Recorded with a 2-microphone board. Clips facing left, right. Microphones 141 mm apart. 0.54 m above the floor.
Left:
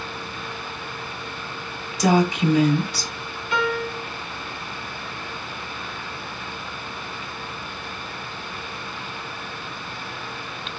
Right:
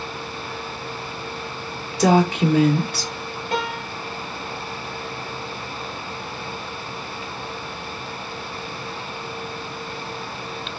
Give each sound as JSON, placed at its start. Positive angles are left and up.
{"t": 2.0, "sound": "a woman speaking", "side_deg": -60, "distance_m": 1.2}
{"t": 3.5, "sound": "a piano", "side_deg": -40, "distance_m": 1.4}